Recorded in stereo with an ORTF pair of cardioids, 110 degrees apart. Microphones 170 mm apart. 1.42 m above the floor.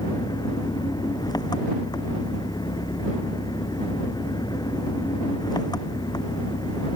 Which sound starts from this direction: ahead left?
An engine running, at 0.0 s.